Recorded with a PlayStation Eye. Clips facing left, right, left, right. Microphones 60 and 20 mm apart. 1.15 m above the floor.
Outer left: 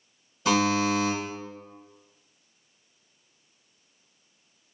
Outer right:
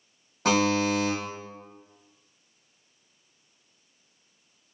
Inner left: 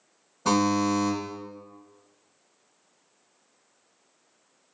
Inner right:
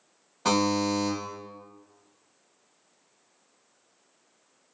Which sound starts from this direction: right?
A buzzer, at 0.5 s.